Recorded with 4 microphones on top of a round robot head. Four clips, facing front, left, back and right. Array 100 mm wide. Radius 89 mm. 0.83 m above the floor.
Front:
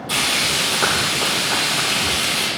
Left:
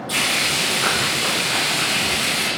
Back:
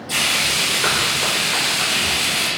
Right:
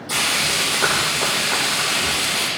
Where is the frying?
35° right, 8 m.